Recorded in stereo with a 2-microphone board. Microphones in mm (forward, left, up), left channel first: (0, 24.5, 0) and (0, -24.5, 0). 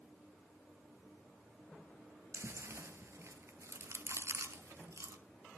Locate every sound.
2.3 s chewing: 65° right (ahead or behind), 0.5 m